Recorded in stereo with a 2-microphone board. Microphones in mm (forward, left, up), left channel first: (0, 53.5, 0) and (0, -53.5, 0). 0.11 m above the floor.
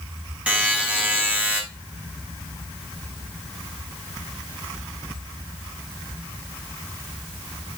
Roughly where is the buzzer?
Centre.